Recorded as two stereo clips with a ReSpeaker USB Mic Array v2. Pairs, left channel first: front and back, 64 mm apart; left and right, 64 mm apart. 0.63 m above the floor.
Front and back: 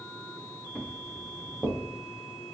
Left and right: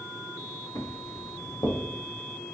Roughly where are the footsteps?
Left.